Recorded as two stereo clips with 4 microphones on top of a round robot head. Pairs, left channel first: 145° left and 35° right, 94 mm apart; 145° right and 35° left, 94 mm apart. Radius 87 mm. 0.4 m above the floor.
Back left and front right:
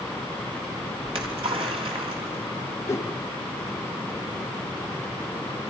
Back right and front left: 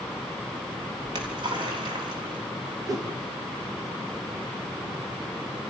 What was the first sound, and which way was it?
A splash, 5° right.